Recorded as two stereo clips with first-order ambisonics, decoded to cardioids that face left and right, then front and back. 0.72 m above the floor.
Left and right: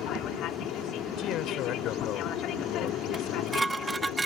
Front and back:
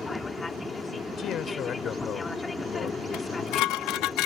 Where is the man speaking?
55° left.